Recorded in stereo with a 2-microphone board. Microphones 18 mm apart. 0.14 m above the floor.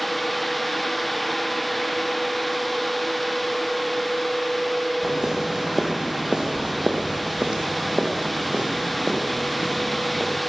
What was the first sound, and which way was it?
Footsteps, 20° right (ahead or behind).